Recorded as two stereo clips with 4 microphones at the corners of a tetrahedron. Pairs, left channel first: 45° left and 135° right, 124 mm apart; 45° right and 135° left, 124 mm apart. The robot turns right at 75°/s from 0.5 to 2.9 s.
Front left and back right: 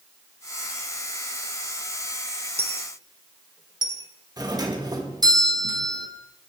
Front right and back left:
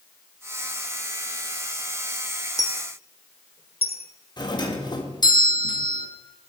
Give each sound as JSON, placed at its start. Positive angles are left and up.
{"t": 2.6, "sound": "a dropped coin", "azimuth_deg": -105, "distance_m": 1.1}
{"t": 4.4, "sound": "a doorbell", "azimuth_deg": -85, "distance_m": 1.5}